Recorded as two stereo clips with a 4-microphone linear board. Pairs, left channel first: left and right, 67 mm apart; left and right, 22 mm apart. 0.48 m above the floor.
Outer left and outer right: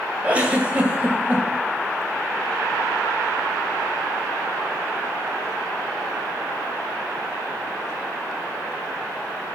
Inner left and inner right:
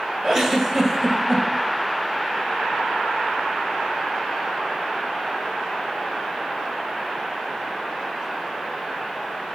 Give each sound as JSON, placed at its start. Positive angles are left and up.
{"t": 0.2, "sound": "a giggle", "side_deg": -20, "distance_m": 1.4}